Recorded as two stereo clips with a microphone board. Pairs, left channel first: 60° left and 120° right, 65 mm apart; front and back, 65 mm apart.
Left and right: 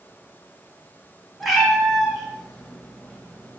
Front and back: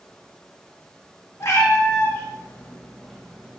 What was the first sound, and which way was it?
A cat meowing, 35° right.